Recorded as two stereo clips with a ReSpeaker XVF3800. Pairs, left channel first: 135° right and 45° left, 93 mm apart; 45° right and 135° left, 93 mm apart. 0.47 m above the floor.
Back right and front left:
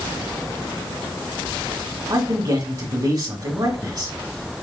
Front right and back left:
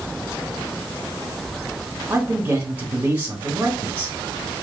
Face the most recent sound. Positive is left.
turn(degrees=70)